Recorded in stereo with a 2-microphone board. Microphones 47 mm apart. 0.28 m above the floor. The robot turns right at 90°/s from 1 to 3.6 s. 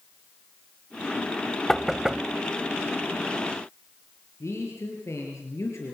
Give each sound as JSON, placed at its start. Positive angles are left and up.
{"t": 1.7, "sound": "knocking", "side_deg": 10, "distance_m": 0.8}
{"t": 4.4, "sound": "a man speaking", "side_deg": 75, "distance_m": 6.5}